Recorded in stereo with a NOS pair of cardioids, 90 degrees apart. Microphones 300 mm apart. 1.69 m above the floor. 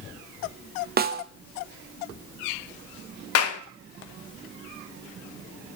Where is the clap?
55° left, 0.8 m.